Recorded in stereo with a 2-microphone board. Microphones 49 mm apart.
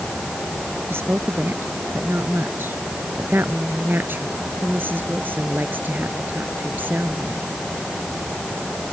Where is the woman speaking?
50° right (ahead or behind); by 7.5 s 35° right (ahead or behind).